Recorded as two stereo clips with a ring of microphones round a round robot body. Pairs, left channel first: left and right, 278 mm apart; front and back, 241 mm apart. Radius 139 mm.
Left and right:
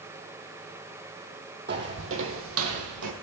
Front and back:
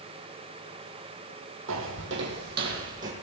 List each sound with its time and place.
1.7 s footsteps: 145° right, 2 m; by 3.1 s 115° right, 2.5 m